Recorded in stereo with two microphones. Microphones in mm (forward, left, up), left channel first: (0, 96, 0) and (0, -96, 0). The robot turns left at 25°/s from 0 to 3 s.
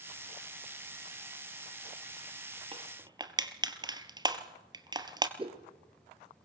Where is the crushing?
30° right (ahead or behind), 1.2 m; by 5.3 s 20° right (ahead or behind), 1.2 m.